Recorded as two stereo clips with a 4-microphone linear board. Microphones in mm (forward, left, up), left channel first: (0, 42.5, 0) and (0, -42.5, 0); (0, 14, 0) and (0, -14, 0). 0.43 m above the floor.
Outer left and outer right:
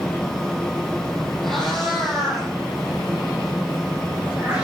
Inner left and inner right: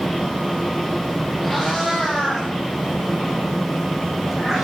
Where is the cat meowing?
5° left (ahead or behind), 7.5 m; by 4.7 s 10° right (ahead or behind), 10.5 m.